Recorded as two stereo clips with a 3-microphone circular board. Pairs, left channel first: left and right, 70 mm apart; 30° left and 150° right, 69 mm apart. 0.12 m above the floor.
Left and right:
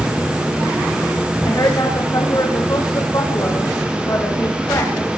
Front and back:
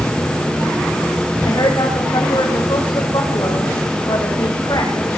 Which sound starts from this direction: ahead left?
A woman speaking, at 1.4 s.